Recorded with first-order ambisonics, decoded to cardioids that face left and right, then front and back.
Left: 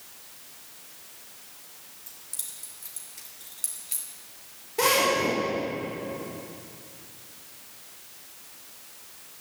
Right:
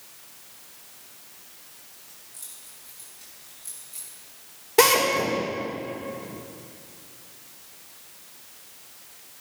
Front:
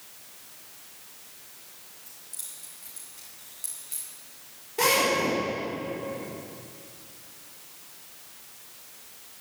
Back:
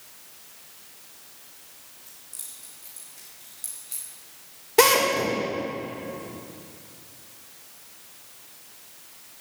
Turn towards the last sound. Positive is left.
turn(degrees=-135)